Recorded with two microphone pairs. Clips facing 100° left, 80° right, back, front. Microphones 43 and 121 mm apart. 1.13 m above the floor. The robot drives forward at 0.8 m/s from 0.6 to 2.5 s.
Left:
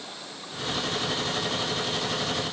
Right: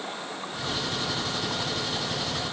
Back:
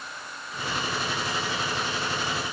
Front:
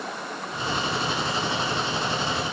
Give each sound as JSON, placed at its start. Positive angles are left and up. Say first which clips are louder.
{"t": 0.0, "sound": "running water", "louder": "right 6 dB, front 8 dB", "azimuth_deg": -20}